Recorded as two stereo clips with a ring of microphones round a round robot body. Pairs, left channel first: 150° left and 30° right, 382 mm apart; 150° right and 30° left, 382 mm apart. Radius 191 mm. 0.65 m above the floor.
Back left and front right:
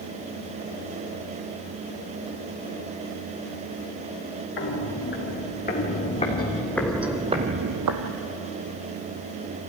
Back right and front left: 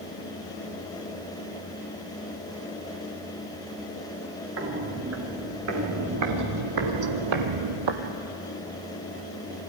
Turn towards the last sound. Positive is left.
turn(degrees=-5)